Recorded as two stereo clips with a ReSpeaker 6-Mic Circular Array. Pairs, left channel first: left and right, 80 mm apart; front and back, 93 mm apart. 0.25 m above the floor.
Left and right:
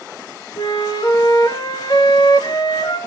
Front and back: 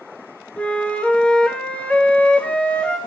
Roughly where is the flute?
Left.